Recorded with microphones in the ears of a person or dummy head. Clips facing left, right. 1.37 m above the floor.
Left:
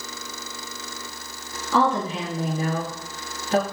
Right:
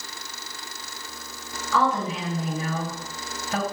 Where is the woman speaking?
25° left (ahead or behind), 2 m.